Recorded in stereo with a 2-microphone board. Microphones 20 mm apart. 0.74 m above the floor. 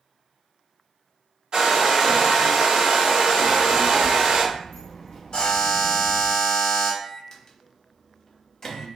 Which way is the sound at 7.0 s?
35° left (ahead or behind).